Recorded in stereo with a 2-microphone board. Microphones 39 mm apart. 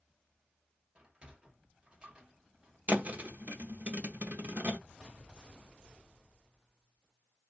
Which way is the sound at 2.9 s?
45° right (ahead or behind).